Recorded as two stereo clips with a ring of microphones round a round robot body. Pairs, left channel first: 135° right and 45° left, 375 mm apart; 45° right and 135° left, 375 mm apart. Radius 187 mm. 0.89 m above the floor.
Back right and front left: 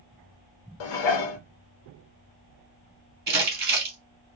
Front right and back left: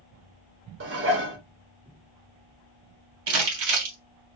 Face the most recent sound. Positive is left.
turn(degrees=110)